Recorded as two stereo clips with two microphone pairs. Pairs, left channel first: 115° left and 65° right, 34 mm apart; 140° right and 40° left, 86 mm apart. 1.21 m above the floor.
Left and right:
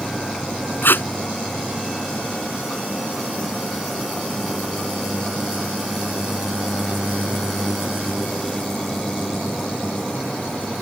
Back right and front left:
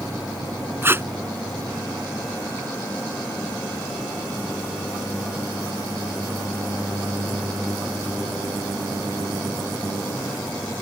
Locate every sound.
0.8 s tape being pulled: 105° left